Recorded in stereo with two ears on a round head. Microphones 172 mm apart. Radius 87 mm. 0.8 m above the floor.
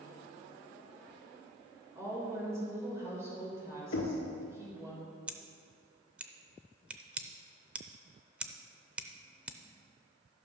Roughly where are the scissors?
Centre.